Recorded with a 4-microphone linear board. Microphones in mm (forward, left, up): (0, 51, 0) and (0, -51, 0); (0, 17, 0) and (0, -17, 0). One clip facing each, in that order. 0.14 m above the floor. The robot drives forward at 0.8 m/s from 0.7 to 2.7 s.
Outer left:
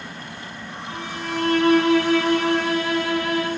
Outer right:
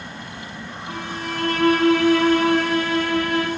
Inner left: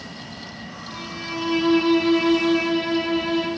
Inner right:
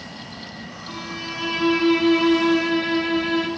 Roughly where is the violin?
Right.